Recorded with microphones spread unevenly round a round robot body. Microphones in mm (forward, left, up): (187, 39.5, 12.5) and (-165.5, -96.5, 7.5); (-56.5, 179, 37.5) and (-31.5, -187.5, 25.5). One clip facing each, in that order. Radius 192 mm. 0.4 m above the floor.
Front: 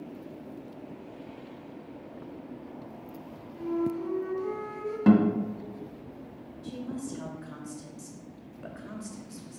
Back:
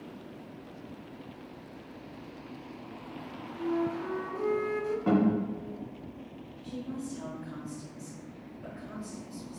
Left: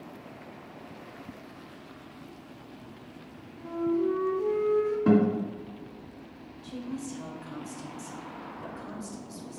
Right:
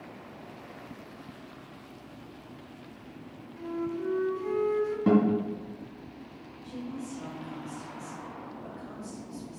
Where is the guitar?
Straight ahead, 2.0 m.